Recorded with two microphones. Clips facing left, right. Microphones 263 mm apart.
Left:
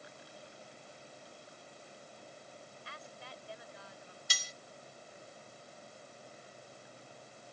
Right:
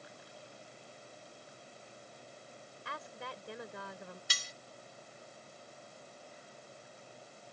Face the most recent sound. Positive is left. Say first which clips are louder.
# even
turn(degrees=-65)  # may be behind; listen again after turning